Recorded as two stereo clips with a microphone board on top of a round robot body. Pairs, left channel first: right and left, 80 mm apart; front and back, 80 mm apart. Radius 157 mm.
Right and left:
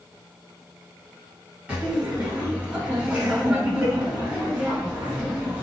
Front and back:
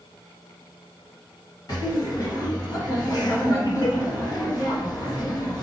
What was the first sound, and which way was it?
Laughter, 20° left.